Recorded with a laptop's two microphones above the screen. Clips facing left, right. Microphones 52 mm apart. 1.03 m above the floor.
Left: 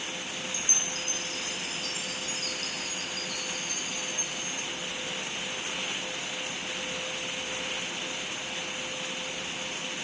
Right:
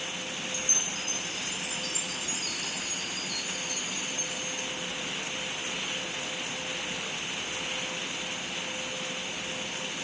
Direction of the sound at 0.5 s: 50° left (ahead or behind).